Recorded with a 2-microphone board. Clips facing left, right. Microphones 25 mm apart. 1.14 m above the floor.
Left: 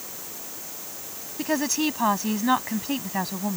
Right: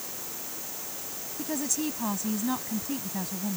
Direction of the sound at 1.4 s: 40° left (ahead or behind).